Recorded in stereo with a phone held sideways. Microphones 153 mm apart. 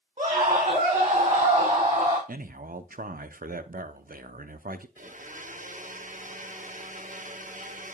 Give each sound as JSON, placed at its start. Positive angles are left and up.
{"t": 0.2, "sound": "a scream", "side_deg": -45, "distance_m": 3.0}
{"t": 2.3, "sound": "a man speaking", "side_deg": -70, "distance_m": 0.6}
{"t": 5.0, "sound": "a blender", "side_deg": -55, "distance_m": 0.7}